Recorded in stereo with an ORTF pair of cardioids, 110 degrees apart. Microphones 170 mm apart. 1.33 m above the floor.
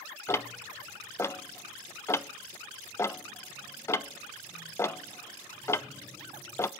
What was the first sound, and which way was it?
Ticking, 15° left.